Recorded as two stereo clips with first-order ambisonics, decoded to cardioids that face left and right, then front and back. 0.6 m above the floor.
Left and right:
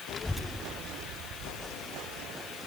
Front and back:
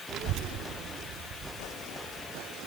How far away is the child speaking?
About 0.8 m.